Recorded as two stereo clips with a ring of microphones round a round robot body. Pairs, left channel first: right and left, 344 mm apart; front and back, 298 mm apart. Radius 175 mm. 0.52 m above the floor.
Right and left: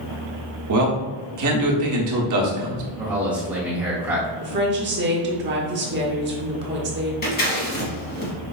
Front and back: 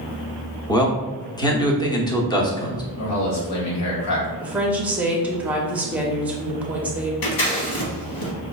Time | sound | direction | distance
0.7 | a man speaking | 75° left | 1.0 m
3.0 | a man speaking | 5° left | 1.3 m
4.4 | a woman speaking | 100° left | 0.9 m
7.2 | scissors | 25° right | 1.0 m